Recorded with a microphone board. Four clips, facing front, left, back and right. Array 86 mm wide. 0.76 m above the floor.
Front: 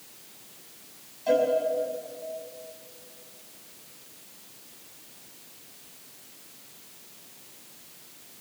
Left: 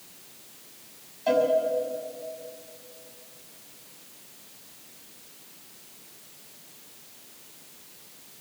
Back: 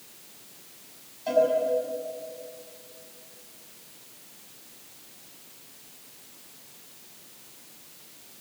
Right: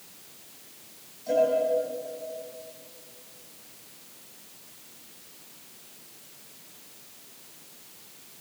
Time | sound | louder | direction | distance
1.3 | a cowbell | left 1 dB, back 1 dB | 90° left | 6 m